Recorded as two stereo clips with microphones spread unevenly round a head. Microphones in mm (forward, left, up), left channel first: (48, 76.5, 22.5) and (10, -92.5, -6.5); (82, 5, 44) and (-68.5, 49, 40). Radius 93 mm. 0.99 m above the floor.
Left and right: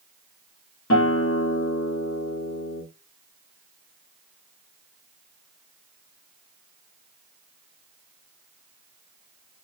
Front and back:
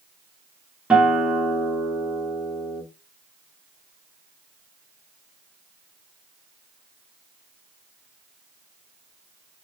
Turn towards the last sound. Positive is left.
turn(degrees=80)